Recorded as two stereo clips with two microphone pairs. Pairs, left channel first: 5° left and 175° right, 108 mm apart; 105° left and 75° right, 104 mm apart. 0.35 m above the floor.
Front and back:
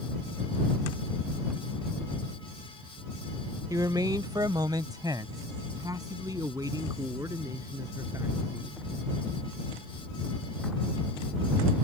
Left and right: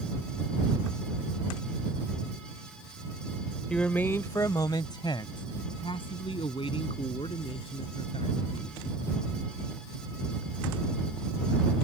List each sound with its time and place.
3.7 s a man speaking: 175° right; by 8.8 s 125° left